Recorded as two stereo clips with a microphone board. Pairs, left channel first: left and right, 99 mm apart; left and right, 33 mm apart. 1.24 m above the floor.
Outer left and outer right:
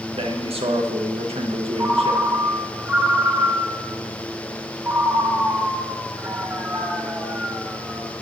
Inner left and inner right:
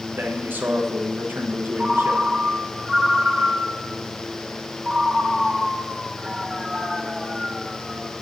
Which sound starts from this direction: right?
A man speaking, at 0.1 s.